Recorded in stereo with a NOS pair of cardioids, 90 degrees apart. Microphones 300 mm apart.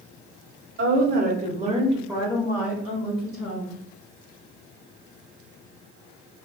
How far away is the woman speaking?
About 1.1 m.